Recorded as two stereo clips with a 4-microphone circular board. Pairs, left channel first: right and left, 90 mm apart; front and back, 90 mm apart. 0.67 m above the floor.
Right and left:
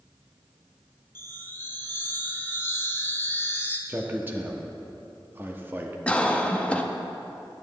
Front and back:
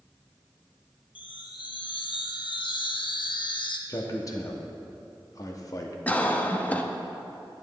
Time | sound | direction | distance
1.1 | a chime | 25° right | 0.6 m
3.9 | a man speaking | 35° left | 0.8 m
6.1 | a cough | 40° right | 0.5 m